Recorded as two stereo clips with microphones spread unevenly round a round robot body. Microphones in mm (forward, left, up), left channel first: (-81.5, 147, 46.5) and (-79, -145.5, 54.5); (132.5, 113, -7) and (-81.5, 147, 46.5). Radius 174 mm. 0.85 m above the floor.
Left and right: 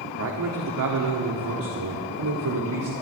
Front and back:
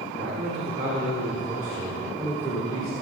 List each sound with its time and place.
0.2 s a man speaking: 125° right, 1.8 m; by 2.9 s 85° right, 2 m